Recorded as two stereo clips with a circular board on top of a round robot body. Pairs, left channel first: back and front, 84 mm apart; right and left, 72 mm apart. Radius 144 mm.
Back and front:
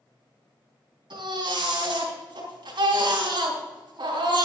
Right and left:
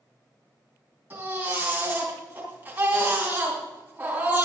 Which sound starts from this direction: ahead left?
A baby crying, at 1.1 s.